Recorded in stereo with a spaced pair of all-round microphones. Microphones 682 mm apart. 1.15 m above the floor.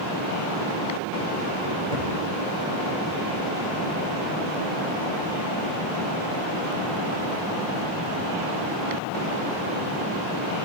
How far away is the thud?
About 6.5 m.